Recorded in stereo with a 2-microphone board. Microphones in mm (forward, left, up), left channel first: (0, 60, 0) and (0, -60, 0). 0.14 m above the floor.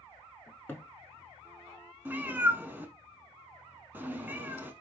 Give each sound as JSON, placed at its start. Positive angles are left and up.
{"t": 0.5, "sound": "a cupboard door", "side_deg": 15, "distance_m": 0.7}
{"t": 2.0, "sound": "a cat meowing", "side_deg": -15, "distance_m": 0.5}